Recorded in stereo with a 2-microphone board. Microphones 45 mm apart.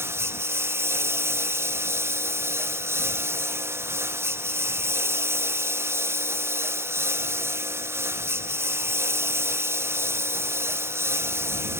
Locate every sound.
0.0 s a lawn mower: 70° right (ahead or behind)